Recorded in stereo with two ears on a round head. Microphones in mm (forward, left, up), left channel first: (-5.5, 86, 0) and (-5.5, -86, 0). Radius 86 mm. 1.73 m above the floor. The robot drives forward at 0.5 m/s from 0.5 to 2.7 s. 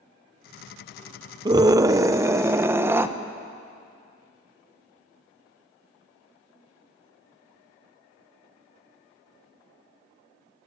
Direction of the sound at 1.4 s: 20° right (ahead or behind).